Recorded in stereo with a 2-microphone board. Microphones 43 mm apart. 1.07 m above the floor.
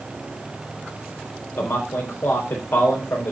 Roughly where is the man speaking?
Left.